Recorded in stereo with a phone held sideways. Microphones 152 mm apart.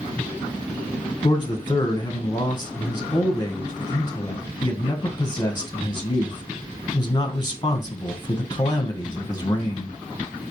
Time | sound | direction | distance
1.2 | a man speaking | 30° left (ahead or behind) | 1.0 m